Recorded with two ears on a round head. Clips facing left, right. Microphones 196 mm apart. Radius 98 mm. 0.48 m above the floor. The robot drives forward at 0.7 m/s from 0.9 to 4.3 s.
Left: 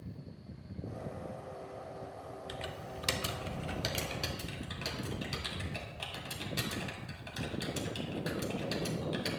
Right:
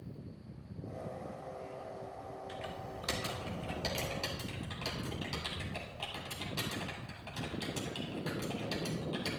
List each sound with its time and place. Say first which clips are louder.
2.5 s typing on a keyboard: left 1 dB; 55° left (ahead or behind), 0.7 m; by 9.3 s 20° left (ahead or behind), 1.7 m